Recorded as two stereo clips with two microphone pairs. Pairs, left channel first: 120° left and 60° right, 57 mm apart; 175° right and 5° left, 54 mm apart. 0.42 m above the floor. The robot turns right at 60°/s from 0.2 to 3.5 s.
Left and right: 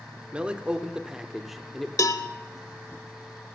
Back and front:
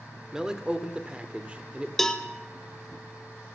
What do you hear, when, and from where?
0.3 s a man speaking: 55° right, 0.9 m; by 1.9 s 40° left, 0.9 m
2.0 s a cowbell: 105° left, 0.7 m; by 2.3 s 120° left, 0.7 m